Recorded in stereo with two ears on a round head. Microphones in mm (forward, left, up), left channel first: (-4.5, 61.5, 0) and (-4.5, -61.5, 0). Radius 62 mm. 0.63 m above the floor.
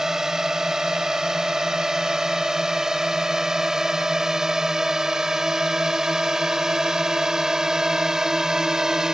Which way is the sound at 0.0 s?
5° right (ahead or behind).